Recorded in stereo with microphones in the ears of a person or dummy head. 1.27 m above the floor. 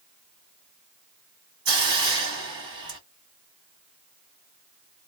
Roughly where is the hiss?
Centre.